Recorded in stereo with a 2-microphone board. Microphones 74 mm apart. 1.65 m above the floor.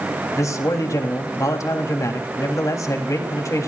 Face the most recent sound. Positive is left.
turn(degrees=50)  # may be behind; listen again after turning